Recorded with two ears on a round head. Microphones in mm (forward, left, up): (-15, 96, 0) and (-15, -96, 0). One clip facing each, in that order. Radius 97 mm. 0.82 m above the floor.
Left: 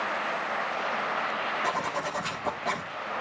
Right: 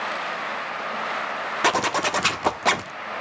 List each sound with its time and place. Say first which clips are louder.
1.6 s a zipper: right 11 dB; 80° right, 1.3 m